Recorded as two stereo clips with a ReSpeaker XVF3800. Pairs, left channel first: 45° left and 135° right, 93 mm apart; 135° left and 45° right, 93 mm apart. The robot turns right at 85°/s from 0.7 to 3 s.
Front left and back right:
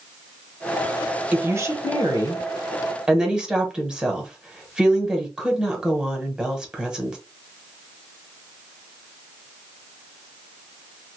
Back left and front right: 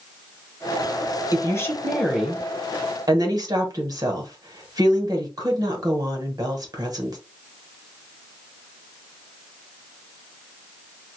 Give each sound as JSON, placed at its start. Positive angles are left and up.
{"t": 1.3, "sound": "a woman speaking", "azimuth_deg": 155, "distance_m": 1.0}